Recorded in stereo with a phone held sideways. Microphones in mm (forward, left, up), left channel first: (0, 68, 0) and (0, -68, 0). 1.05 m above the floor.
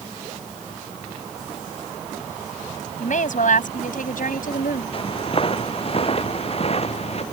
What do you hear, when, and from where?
3.0 s a woman speaking: 65° left (ahead or behind); by 4.8 s 85° left
4.9 s footsteps: 40° left (ahead or behind); by 7.2 s 50° left (ahead or behind)